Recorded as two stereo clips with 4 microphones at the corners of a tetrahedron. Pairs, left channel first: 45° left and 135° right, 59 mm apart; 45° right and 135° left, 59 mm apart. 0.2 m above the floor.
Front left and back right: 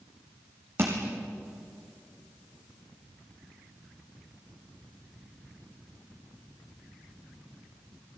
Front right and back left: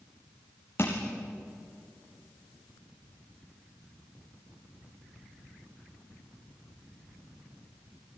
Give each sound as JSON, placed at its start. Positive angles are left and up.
{"t": 0.8, "sound": "crushing", "azimuth_deg": -95, "distance_m": 5.0}